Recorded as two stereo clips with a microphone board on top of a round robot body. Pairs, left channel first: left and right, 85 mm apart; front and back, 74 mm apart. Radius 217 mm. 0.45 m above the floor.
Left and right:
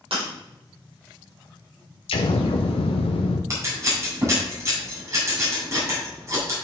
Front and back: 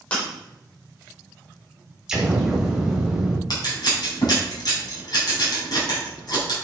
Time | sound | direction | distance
0.1 | breaking glass | 70° right | 4 m
2.1 | an explosion | 100° left | 0.8 m
3.5 | scissors | 35° right | 3.5 m